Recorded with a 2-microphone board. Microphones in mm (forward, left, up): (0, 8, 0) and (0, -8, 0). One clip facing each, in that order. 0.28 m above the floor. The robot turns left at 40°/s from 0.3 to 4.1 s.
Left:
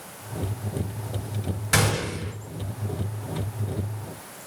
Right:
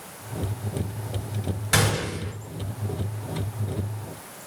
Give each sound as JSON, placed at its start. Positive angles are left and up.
{"t": 1.7, "sound": "a gunshot", "side_deg": -5, "distance_m": 1.8}